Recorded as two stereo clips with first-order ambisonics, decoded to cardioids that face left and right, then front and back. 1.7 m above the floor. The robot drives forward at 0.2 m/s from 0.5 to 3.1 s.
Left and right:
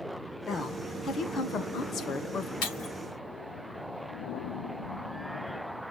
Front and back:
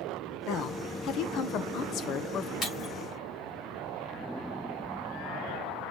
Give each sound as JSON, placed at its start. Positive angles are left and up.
{"t": 0.5, "sound": "a woman speaking", "azimuth_deg": 30, "distance_m": 1.2}
{"t": 2.6, "sound": "breaking glass", "azimuth_deg": 65, "distance_m": 4.5}